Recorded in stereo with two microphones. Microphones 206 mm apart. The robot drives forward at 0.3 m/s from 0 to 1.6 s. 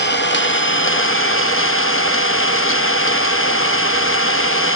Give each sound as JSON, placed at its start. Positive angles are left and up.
{"t": 0.0, "sound": "an engine running", "side_deg": 55, "distance_m": 0.8}